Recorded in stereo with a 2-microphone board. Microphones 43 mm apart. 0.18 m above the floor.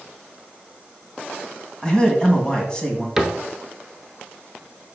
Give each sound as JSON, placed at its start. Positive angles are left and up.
{"t": 1.8, "sound": "a man speaking", "side_deg": 15, "distance_m": 1.4}
{"t": 3.2, "sound": "a cupboard door", "side_deg": -5, "distance_m": 1.0}